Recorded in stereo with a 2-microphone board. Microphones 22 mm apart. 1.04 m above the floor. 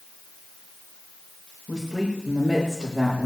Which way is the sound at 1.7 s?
45° right (ahead or behind).